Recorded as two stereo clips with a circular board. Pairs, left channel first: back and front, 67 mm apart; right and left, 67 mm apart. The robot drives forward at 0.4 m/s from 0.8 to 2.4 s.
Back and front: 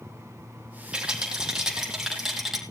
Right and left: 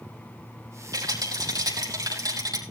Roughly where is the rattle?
Left.